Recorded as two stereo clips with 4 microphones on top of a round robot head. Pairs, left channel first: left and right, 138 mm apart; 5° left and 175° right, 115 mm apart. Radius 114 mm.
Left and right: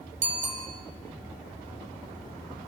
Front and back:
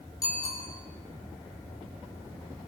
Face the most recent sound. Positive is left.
turn(degrees=-60)